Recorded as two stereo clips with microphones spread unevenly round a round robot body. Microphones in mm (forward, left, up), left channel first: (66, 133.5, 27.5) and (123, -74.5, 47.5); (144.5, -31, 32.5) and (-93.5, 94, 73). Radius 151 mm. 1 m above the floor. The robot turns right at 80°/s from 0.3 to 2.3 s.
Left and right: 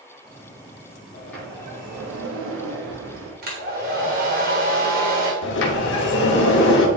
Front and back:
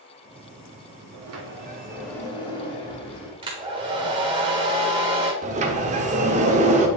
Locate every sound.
1.1 s a sliding door: 170° left, 1.2 m; by 3.3 s 95° right, 1.2 m
3.4 s a hair dryer: 135° right, 1.2 m
5.4 s a sliding door: 105° left, 0.8 m